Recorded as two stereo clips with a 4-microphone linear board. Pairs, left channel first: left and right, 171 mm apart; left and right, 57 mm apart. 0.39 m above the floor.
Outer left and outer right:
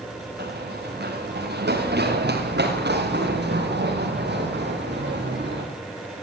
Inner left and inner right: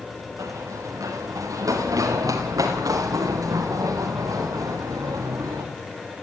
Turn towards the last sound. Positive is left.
turn(degrees=-80)